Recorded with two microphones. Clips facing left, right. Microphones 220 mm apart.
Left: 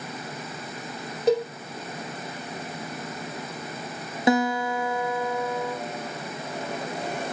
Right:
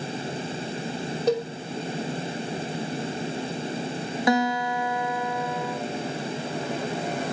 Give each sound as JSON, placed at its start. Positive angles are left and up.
{"t": 1.3, "sound": "a cowbell", "side_deg": 0, "distance_m": 4.0}
{"t": 4.3, "sound": "a guitar", "side_deg": 25, "distance_m": 1.9}